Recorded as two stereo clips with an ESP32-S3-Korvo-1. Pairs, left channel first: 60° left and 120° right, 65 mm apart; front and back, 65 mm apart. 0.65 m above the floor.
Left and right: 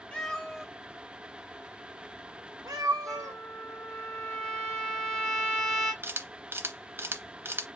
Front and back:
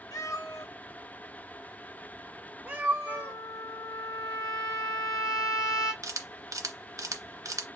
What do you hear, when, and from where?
0.1 s a cat meowing: 15° right, 1.0 m; by 3.4 s 125° right, 1.5 m
3.1 s a trumpet: 20° right, 1.7 m
6.0 s a camera shutter: 170° right, 0.7 m